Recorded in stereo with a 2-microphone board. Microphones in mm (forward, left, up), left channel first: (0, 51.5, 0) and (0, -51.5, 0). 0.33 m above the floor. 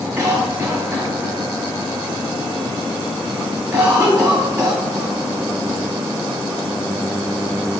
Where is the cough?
15° right (ahead or behind), 1.0 m.